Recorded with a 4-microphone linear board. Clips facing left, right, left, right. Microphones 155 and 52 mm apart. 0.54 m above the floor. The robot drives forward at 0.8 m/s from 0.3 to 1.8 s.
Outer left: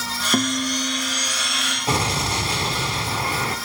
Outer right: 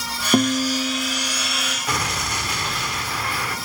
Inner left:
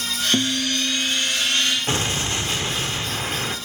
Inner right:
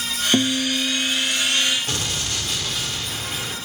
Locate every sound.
0.3 s a guitar: 20° right (ahead or behind), 0.6 m; by 1.8 s 5° right (ahead or behind), 1.4 m
1.9 s an explosion: 30° left (ahead or behind), 1.2 m